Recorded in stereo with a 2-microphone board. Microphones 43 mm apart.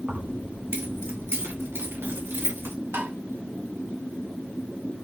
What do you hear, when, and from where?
0.1 s keys jangling: 55° right (ahead or behind), 1.8 m; by 2.8 s 80° right, 3 m
2.9 s tapping: 75° right (ahead or behind), 1.9 m